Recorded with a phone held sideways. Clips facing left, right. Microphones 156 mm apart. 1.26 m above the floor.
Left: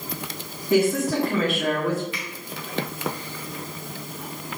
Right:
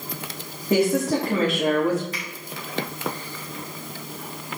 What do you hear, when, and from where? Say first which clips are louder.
0.7 s a woman speaking: even; 35° right (ahead or behind), 3 m
2.1 s a finger snap: even; 40° right (ahead or behind), 3.5 m